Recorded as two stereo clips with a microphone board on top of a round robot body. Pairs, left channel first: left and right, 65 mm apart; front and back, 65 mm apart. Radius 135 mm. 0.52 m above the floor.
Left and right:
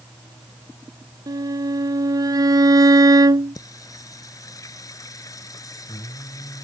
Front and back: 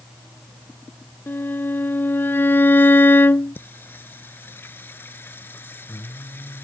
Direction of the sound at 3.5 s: 60° left.